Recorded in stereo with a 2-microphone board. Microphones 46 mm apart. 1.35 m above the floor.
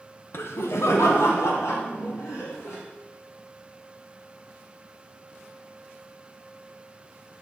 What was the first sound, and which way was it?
Laughter, 55° left (ahead or behind).